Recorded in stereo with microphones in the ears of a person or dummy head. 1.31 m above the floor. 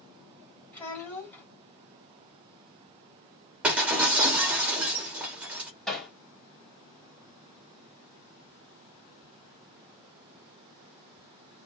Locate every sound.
0.7 s a child speaking: 15° left (ahead or behind), 2.5 m
3.6 s breaking glass: 5° right (ahead or behind), 1.0 m
5.9 s hammering: 10° left (ahead or behind), 1.9 m